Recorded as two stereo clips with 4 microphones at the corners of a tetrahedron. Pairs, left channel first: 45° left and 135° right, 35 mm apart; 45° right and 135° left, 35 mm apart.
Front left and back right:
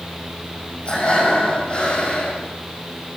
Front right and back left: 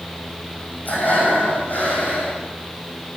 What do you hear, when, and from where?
0.8 s breathing: 10° right, 6.5 m